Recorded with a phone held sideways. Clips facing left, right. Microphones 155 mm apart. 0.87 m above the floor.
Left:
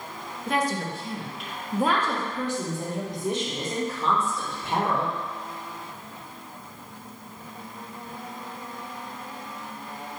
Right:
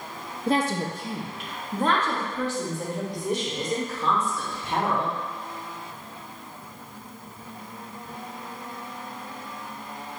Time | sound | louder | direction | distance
0.5 | a woman speaking | right 2 dB | 35° right (ahead or behind) | 0.6 m